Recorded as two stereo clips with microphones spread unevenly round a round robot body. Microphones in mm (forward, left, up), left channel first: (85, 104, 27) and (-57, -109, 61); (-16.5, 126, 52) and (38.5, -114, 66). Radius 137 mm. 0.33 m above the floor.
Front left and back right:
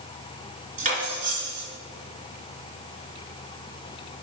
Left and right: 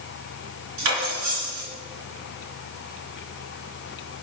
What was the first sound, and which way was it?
Cutlery clinking, 60° right.